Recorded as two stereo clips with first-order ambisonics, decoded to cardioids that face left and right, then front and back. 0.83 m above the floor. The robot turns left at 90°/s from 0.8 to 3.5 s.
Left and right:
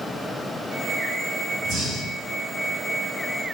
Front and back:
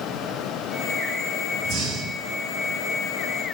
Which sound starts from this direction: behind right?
Breathing, at 1.6 s.